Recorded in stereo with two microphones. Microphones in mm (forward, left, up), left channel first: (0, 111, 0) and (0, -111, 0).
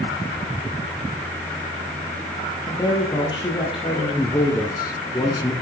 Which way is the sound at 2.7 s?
20° left (ahead or behind).